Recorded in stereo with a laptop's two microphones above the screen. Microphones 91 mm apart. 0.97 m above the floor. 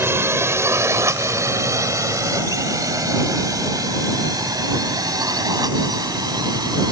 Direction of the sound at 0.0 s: 25° right (ahead or behind).